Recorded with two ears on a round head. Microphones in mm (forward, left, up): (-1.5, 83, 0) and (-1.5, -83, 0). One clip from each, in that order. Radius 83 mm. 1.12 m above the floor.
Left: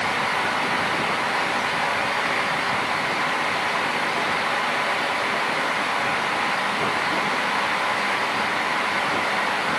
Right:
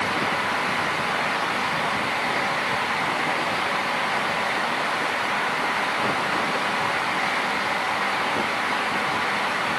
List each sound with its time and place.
Only background noise.